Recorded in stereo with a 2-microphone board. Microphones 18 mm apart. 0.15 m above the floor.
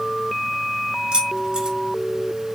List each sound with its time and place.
1.1 s keys jangling: 70° right (ahead or behind), 2.5 m